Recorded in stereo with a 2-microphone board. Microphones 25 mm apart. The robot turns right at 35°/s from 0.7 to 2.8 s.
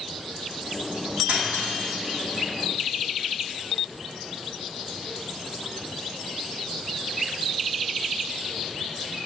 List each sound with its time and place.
1.3 s cutlery clinking: 70° right (ahead or behind), 6.5 m; by 2.2 s 75° right (ahead or behind), 6.5 m